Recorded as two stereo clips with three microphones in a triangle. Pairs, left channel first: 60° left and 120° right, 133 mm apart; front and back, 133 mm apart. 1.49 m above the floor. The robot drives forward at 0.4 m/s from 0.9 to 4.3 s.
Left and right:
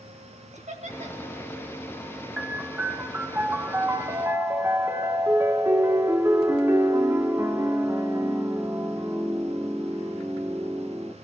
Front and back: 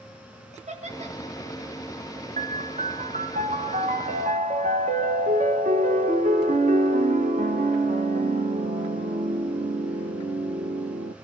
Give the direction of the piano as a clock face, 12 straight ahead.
7 o'clock.